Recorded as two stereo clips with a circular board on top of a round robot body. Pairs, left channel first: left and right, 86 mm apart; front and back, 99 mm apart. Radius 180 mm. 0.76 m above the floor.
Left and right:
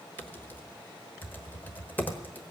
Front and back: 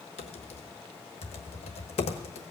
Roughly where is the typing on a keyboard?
Ahead.